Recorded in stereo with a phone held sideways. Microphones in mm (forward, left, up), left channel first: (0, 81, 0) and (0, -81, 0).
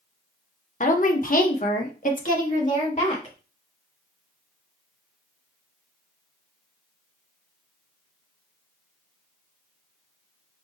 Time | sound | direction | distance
0.8 | a woman speaking | 55° left (ahead or behind) | 0.9 m